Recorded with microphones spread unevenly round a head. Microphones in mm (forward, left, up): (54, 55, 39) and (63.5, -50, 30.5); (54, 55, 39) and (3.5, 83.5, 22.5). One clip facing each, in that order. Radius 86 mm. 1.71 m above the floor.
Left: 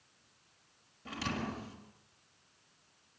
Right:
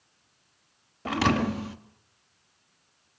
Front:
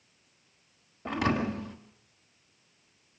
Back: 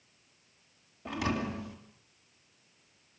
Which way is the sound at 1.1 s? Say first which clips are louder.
Right 14 dB, front 4 dB; 80° right.